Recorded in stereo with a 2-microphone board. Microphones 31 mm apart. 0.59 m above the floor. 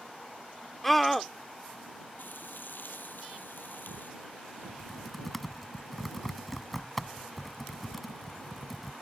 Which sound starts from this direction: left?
Frying, at 2.2 s.